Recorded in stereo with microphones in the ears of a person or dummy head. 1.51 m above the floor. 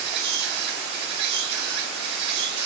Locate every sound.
0.0 s an insect: 60° right (ahead or behind), 1.5 m